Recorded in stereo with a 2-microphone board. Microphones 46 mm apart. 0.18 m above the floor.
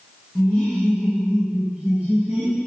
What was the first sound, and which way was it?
Laughter, 20° left (ahead or behind).